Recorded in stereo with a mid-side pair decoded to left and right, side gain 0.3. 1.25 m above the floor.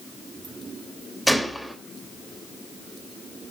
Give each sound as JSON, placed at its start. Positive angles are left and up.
{"t": 1.3, "sound": "a gunshot", "azimuth_deg": 0, "distance_m": 2.5}